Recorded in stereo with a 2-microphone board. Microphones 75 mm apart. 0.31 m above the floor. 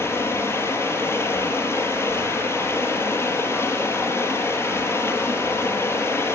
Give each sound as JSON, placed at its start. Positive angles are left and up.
{"t": 0.0, "sound": "running water", "side_deg": 35, "distance_m": 5.5}